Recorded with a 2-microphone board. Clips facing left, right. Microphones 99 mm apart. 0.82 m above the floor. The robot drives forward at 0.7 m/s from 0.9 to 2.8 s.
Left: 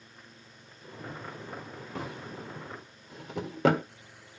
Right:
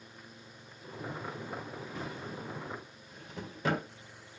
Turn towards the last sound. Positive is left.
turn(degrees=80)